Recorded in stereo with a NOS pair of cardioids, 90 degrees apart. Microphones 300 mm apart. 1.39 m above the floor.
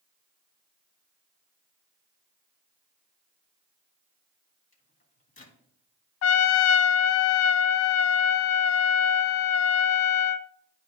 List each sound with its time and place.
4.7 s a microwave: 25° left, 2 m
6.2 s a trumpet: 55° left, 0.5 m